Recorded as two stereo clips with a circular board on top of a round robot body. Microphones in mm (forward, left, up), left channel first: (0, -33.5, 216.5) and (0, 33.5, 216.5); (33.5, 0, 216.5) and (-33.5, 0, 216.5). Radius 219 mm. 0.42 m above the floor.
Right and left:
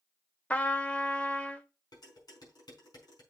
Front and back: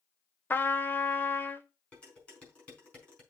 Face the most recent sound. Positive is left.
turn(degrees=-75)